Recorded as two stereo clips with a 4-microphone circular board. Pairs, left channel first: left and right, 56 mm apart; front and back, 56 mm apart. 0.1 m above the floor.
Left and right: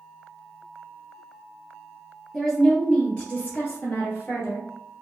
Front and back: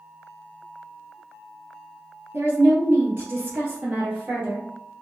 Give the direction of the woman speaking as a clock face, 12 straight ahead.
6 o'clock.